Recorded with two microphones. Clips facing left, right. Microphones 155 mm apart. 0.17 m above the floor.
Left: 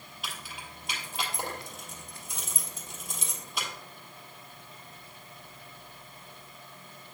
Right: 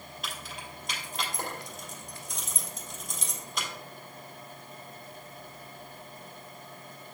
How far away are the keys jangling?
About 2.5 m.